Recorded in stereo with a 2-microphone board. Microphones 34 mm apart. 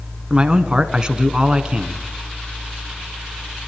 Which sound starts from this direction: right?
A man speaking, at 0.3 s.